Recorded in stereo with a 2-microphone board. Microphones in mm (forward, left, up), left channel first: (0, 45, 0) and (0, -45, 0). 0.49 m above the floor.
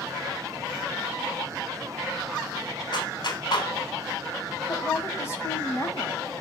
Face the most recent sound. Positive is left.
turn(degrees=30)  # may be behind; listen again after turning